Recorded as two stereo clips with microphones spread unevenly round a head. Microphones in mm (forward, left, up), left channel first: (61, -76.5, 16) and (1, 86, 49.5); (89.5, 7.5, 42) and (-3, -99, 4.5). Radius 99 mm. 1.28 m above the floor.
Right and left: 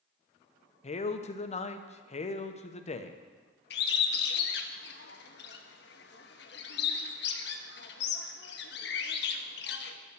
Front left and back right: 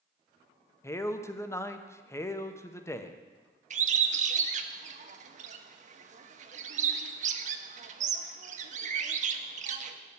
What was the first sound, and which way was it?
A man speaking, 30° right.